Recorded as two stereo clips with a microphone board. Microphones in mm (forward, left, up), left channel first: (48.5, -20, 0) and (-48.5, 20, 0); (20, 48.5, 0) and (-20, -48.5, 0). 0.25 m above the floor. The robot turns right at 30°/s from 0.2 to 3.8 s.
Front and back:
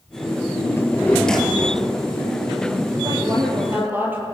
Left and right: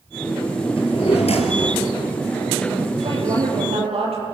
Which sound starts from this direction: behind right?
A woman speaking, at 3.0 s.